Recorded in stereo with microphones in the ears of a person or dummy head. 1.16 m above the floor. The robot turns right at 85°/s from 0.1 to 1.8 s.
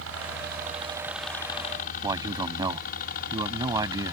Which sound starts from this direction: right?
A helicopter, at 0.0 s.